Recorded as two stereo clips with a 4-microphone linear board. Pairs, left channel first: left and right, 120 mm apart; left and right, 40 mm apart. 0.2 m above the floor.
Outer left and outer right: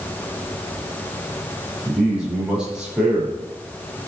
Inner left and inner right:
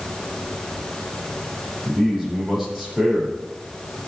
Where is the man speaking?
5° right (ahead or behind), 5.5 m.